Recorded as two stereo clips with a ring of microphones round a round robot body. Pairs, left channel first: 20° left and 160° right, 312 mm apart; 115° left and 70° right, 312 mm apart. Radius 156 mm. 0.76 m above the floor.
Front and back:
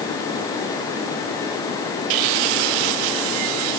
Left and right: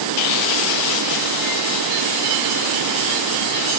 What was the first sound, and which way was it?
Only background noise.